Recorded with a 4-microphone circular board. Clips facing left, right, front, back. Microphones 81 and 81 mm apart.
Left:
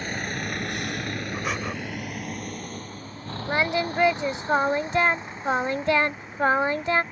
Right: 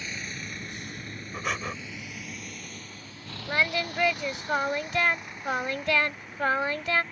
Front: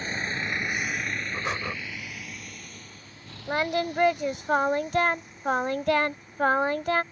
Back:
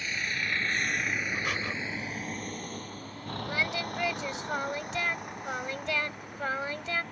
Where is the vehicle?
50° left; by 7.1 s 160° left.